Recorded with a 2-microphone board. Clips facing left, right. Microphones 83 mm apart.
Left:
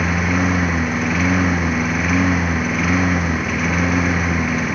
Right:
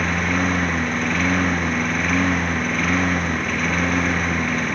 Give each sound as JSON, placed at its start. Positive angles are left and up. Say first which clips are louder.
{"t": 0.0, "sound": "a lawn mower", "louder": "left 2 dB", "side_deg": 5}